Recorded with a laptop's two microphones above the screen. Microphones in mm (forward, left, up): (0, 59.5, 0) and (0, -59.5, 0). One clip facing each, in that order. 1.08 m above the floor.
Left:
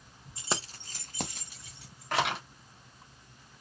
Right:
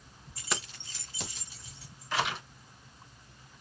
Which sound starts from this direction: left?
Keys jangling, at 0.4 s.